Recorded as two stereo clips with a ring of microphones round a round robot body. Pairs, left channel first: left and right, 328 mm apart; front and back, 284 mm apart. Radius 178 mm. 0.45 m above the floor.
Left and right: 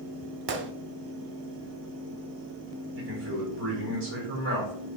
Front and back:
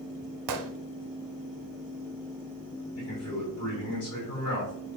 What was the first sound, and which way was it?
A gunshot, 150° right.